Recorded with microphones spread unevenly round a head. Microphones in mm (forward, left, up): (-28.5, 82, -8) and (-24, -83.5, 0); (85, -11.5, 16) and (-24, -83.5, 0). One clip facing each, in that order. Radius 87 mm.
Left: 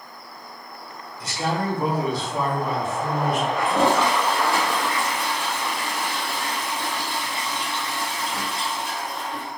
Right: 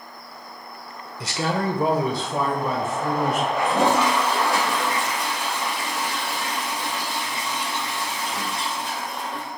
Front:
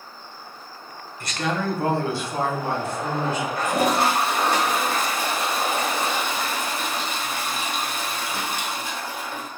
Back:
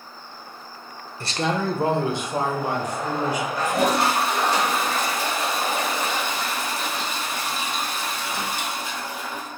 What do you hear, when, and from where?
1.2 s a man speaking: 100° right, 0.7 m; by 3.5 s 70° right, 1.9 m
3.6 s a toilet flushing: 10° right, 1.4 m